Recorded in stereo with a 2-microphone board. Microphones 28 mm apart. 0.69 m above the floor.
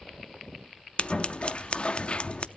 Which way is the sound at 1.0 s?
40° left (ahead or behind).